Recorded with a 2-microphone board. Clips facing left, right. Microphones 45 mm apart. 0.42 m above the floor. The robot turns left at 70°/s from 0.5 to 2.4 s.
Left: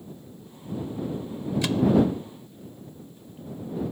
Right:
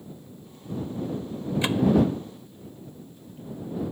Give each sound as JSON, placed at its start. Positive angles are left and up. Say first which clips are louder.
{"t": 1.6, "sound": "a microwave", "louder": "right 1 dB", "side_deg": -25}